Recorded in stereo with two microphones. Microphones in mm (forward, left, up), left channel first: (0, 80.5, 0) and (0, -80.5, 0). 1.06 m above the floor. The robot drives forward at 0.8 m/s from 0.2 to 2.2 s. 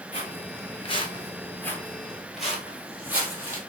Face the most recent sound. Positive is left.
turn(degrees=-15)  # may be behind; listen again after turning